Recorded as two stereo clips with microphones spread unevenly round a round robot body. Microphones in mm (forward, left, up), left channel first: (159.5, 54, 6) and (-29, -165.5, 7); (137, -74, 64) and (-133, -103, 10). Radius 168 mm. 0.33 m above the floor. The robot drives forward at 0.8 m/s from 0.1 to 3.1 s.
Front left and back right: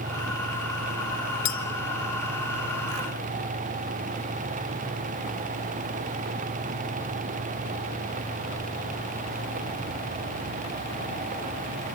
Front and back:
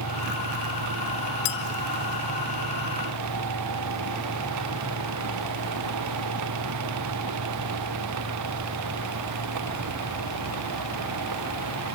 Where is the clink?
20° left, 2.5 m; by 1.6 s 25° left, 2.5 m.